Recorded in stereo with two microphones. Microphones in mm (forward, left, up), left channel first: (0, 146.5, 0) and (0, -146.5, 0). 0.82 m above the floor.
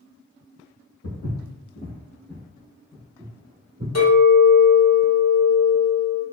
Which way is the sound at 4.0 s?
65° left (ahead or behind).